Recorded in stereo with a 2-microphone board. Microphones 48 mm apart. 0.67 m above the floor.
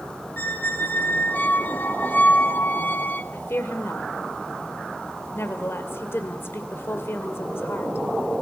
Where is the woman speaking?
60° left (ahead or behind), 2.5 m.